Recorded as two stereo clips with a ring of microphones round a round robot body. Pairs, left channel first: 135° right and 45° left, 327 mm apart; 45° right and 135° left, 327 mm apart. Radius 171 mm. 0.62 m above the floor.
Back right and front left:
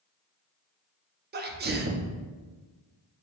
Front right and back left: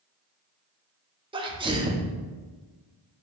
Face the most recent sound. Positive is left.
turn(degrees=70)